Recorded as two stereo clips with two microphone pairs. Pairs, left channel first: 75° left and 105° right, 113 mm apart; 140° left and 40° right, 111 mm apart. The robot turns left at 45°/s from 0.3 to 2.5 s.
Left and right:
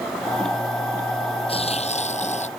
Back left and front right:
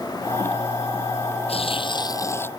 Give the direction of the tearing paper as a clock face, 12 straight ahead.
8 o'clock.